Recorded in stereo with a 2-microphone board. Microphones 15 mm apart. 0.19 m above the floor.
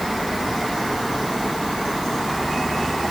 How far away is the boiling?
I don't hear boiling.